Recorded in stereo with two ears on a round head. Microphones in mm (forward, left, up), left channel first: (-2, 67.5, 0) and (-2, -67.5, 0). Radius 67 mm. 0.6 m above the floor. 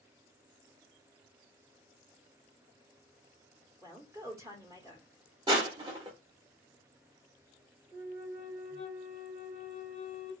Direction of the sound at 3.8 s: 20° right (ahead or behind).